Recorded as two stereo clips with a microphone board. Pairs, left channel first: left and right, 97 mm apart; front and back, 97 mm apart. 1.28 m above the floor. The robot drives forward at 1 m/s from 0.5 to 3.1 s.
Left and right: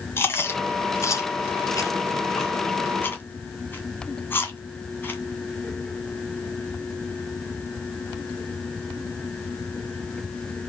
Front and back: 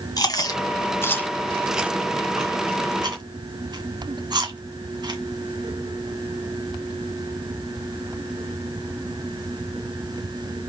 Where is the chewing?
35° left, 1.7 m; by 5.2 s 155° left, 1.9 m.